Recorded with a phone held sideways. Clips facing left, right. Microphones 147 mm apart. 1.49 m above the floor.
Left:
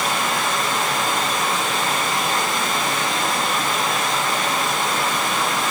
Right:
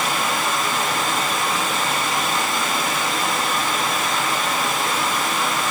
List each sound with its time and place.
0.0 s running water: centre (ahead or behind), 4.5 m